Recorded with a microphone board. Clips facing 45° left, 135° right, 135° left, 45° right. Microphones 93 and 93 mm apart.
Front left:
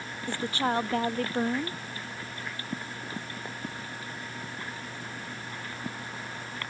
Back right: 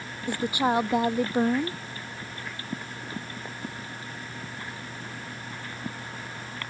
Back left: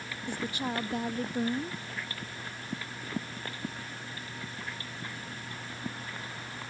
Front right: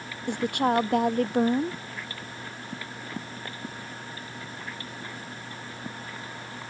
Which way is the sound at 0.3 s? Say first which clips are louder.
Back right 4 dB, front right 10 dB; 60° right.